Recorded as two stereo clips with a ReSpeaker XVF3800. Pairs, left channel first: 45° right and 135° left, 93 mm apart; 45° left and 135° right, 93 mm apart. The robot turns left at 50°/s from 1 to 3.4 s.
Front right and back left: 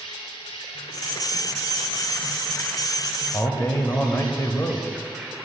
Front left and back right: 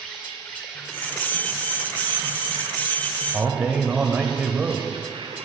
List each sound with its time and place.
0.0 s an insect: 25° right, 2 m; by 5.5 s 145° right, 2 m
3.3 s a man speaking: 60° right, 1.0 m; by 5.5 s 65° right, 1.0 m